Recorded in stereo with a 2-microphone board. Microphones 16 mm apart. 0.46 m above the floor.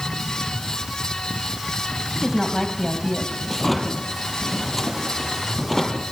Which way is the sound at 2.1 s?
5° right (ahead or behind).